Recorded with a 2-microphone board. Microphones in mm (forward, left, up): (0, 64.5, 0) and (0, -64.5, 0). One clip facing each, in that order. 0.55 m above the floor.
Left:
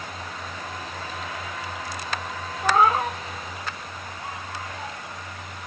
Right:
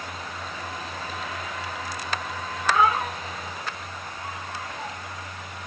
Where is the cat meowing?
40° left (ahead or behind), 0.7 m.